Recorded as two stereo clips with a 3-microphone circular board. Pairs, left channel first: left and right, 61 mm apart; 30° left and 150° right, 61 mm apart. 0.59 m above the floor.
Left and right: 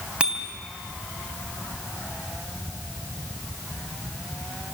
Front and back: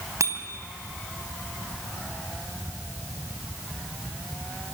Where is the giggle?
No giggle in this recording.